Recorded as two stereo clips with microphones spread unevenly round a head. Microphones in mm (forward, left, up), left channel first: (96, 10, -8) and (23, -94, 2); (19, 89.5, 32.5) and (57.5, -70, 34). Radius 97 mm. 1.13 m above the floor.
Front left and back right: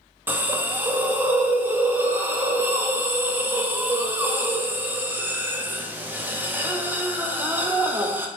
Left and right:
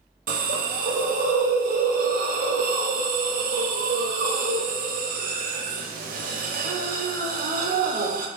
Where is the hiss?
55° right, 0.6 m.